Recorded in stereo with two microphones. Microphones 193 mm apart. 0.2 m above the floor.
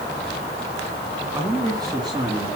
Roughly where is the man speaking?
Centre.